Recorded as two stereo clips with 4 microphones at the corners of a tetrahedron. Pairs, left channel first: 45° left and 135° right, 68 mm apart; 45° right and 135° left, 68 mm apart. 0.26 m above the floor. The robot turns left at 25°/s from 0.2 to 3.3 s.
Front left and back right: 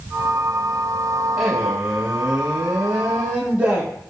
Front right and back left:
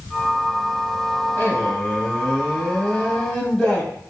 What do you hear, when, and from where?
1.4 s a man speaking: 50° right, 1.0 m; by 3.9 s 95° right, 1.0 m